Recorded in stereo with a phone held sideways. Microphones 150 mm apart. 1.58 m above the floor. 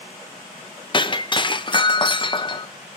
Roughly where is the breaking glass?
Left.